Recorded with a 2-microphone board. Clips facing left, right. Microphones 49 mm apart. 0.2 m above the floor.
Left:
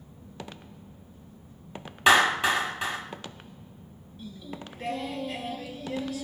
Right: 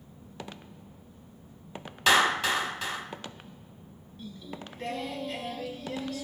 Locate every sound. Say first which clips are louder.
2.1 s a clap: left 3 dB; 20° left (ahead or behind), 0.9 m
4.2 s singing: left 1 dB; 5° left (ahead or behind), 0.5 m